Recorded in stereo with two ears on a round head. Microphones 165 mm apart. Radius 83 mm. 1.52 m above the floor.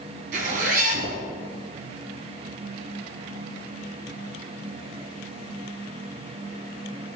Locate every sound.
0.3 s a zipper: 50° right (ahead or behind), 2.5 m